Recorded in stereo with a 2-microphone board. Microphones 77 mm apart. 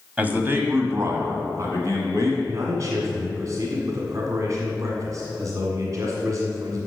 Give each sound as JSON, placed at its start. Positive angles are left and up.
{"t": 0.2, "sound": "a man speaking", "side_deg": -20, "distance_m": 1.3}
{"t": 2.4, "sound": "a man speaking", "side_deg": -45, "distance_m": 1.6}